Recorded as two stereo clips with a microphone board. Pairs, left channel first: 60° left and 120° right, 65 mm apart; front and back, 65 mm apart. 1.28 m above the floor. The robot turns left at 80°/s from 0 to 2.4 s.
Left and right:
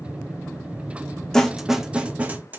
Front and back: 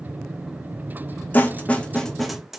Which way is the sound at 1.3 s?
15° right.